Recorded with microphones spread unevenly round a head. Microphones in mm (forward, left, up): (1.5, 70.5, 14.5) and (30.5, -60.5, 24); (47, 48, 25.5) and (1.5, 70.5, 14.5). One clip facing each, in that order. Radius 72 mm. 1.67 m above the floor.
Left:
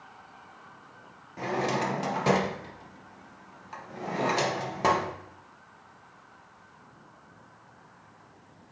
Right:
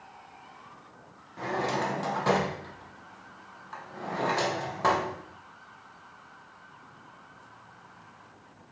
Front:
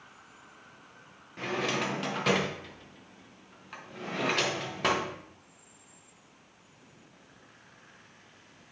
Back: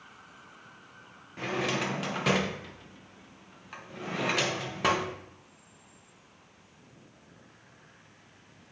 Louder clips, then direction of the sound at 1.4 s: Left 1 dB, even; 45° left.